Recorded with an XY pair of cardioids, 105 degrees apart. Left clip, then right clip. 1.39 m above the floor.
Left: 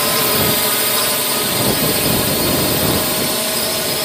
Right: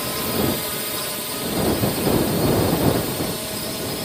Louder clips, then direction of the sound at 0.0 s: Left 7 dB; 70° left.